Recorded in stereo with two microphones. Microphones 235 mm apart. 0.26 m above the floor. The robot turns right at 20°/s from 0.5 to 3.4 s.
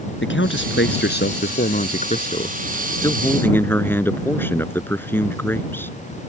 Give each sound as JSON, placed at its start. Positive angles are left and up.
{"t": 0.2, "sound": "a man speaking", "azimuth_deg": 110}